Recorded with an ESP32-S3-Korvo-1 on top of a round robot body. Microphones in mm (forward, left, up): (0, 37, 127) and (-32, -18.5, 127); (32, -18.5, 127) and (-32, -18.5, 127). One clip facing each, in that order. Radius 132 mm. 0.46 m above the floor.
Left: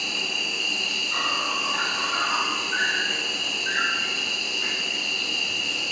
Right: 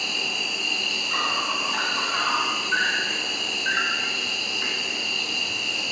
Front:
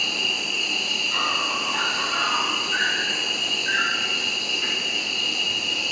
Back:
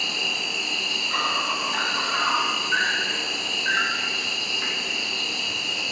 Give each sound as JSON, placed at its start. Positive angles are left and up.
{"t": 0.0, "sound": "an insect", "azimuth_deg": -145, "distance_m": 0.8}